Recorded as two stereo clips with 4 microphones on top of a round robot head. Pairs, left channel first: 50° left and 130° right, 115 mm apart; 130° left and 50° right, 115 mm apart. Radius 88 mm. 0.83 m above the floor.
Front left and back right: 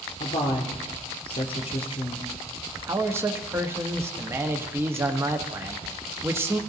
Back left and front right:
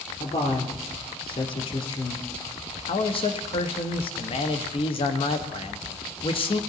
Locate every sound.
0.2 s a woman speaking: 90° left, 2.5 m
2.9 s a man speaking: 165° left, 1.1 m